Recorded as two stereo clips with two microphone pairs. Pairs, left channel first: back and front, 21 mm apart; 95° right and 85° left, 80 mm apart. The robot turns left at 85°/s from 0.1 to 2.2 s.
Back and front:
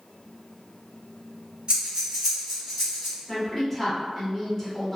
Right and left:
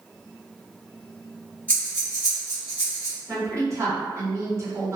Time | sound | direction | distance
1.7 | breathing | 35° right | 1.4 m
3.3 | a woman speaking | 105° left | 1.2 m